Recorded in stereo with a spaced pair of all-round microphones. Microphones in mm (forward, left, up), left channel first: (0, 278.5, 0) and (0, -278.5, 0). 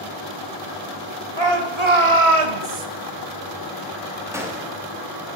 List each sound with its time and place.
1.4 s a shout: 50° right (ahead or behind), 1.5 m; by 2.9 s 75° right (ahead or behind), 0.9 m
4.3 s a gunshot: 5° right (ahead or behind), 1.1 m